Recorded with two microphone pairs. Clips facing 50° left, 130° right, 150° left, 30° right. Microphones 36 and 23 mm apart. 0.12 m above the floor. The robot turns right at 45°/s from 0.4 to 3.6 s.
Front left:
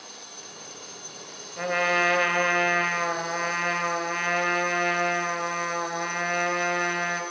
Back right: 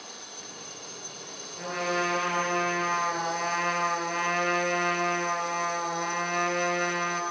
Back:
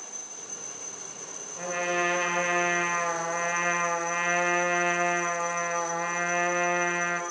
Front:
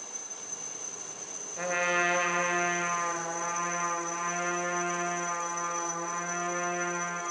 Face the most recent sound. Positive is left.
turn(degrees=115)